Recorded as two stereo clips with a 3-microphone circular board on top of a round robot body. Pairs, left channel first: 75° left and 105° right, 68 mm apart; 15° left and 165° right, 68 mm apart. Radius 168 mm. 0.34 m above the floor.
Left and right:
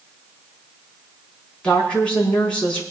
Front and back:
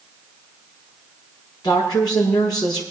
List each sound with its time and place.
1.6 s a woman speaking: straight ahead, 6 m